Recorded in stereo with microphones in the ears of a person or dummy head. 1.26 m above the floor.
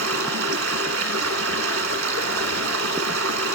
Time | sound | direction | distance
0.0 | running water | 80° right | 1.2 m